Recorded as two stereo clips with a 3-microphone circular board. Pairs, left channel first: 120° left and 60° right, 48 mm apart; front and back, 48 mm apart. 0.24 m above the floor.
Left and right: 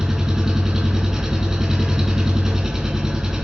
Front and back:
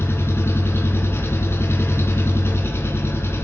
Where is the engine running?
20° left, 2.5 m.